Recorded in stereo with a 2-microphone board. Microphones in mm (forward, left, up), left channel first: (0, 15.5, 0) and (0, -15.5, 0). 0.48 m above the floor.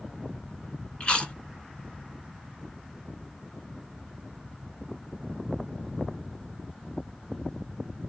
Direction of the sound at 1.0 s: 40° left (ahead or behind).